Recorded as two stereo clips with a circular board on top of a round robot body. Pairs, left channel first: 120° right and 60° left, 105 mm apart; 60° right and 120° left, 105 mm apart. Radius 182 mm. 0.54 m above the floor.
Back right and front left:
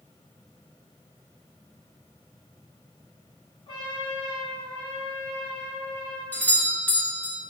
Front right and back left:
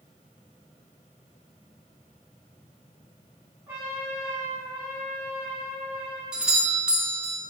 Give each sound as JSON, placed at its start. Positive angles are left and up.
{"t": 3.7, "sound": "a trumpet", "azimuth_deg": -170, "distance_m": 1.3}
{"t": 6.3, "sound": "a doorbell", "azimuth_deg": -170, "distance_m": 1.1}